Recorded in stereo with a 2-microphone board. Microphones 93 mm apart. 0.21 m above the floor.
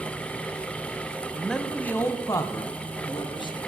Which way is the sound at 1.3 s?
Centre (ahead or behind).